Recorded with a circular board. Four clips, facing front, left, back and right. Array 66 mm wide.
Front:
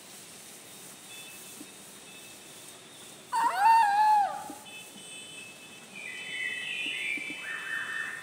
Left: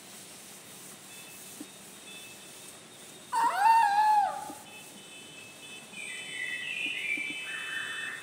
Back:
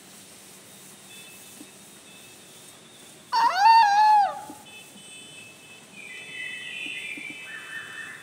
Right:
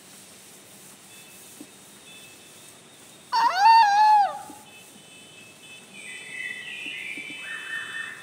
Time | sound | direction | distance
3.3 | a scream | 130° right | 1.4 m
5.9 | a bird | 40° right | 9 m